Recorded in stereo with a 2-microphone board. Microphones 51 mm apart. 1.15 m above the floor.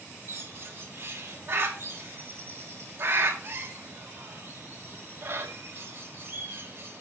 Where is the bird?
50° right (ahead or behind), 1.3 m.